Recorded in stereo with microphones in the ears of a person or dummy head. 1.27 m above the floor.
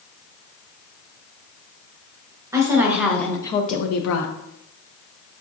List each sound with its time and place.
2.5 s a woman speaking: 10° right (ahead or behind), 1.1 m; by 4.3 s 85° left, 0.6 m